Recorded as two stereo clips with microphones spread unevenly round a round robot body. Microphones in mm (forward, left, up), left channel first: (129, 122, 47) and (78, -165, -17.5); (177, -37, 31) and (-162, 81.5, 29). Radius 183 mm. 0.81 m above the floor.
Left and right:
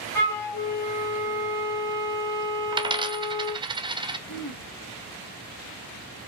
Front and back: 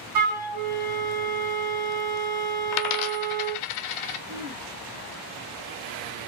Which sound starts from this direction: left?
Throat clearing, at 4.3 s.